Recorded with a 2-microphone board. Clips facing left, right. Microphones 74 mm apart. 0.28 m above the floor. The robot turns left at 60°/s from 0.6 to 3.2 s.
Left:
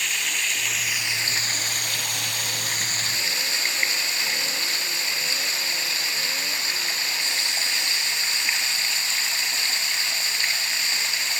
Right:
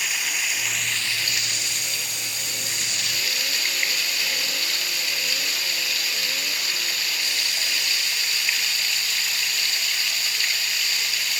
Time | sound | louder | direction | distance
0.0 | running water | even | 170° right | 0.9 m